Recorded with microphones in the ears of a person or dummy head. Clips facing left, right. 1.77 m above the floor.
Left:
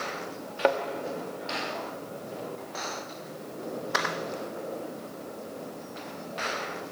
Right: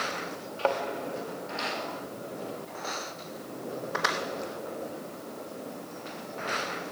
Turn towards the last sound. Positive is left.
turn(degrees=20)  # may be behind; listen again after turning